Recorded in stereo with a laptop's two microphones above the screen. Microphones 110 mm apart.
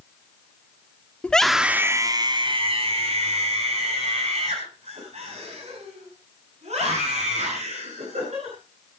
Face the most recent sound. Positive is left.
turn(degrees=-85)